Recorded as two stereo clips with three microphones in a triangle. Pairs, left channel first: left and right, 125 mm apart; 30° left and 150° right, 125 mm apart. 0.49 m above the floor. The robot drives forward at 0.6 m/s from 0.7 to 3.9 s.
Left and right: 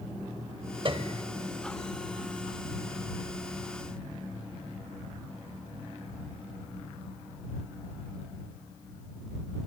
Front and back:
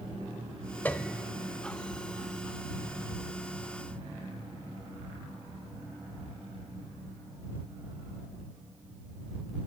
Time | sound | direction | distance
0.8 | a piano | 45° right | 0.9 m